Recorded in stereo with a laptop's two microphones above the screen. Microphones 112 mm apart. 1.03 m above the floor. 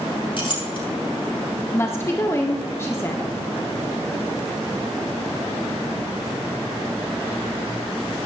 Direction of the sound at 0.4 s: 50° left (ahead or behind).